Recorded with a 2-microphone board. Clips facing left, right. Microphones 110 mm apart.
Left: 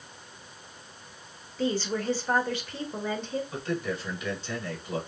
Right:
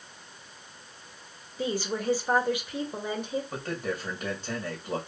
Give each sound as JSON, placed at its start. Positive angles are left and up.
{"t": 1.6, "sound": "a woman speaking", "side_deg": -10, "distance_m": 1.5}
{"t": 3.5, "sound": "a man speaking", "side_deg": -45, "distance_m": 2.5}